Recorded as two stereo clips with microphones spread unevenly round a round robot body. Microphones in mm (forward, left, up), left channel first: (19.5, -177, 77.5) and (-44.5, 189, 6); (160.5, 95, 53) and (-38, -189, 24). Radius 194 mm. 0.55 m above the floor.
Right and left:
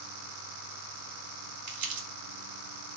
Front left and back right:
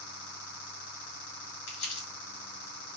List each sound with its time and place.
1.7 s crumpling: 95° left, 2 m